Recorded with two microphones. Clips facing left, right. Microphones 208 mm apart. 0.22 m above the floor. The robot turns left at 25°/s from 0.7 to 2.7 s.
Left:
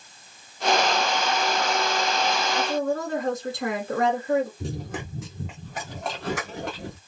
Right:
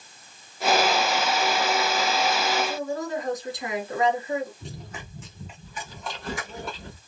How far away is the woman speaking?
About 2 m.